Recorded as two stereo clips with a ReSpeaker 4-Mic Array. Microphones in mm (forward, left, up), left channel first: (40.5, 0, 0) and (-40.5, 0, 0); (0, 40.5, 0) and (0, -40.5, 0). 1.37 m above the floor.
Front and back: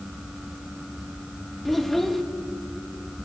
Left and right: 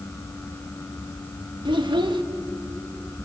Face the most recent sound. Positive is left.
turn(degrees=-90)